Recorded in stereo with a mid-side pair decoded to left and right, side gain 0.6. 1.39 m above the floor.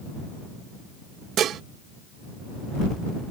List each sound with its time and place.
1.4 s dishes clattering: 55° right